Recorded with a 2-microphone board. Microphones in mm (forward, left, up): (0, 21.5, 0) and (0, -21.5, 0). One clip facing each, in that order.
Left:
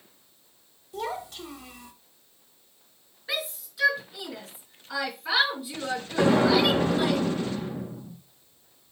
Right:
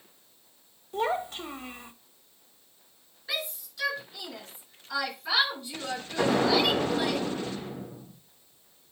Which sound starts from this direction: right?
A child speaking, at 0.9 s.